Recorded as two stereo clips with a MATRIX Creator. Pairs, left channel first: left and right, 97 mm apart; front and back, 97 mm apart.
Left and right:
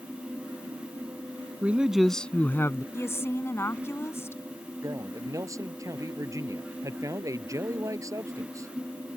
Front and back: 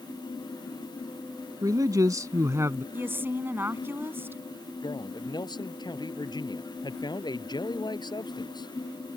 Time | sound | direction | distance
1.6 | a man speaking | 155° right | ?
2.9 | a woman speaking | 130° left | ?
4.8 | a man speaking | 35° right | ?